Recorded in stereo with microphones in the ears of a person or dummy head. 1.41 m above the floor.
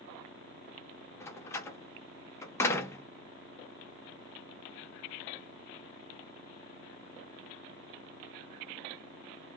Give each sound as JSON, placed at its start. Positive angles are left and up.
{"t": 1.2, "sound": "a door slam", "side_deg": 25, "distance_m": 0.7}